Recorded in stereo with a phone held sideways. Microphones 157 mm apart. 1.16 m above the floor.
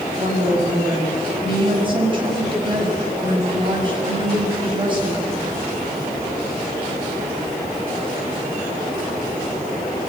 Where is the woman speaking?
35° right (ahead or behind), 6 m.